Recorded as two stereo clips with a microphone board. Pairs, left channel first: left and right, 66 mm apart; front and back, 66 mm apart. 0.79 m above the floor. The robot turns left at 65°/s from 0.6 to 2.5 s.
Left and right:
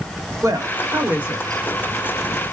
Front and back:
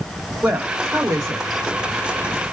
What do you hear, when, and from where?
0.4 s a woman speaking: 110° right, 1.4 m; by 1.8 s 170° left, 1.4 m